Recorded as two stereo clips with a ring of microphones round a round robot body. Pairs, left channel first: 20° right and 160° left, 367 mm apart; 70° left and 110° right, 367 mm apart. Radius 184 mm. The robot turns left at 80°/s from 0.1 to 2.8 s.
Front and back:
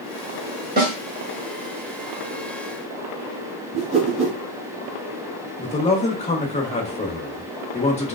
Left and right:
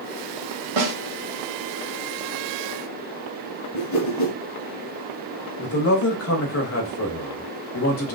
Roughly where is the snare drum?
Behind right.